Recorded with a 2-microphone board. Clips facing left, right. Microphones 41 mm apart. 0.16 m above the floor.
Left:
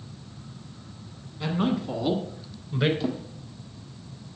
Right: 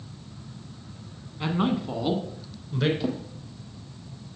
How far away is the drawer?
About 1.6 m.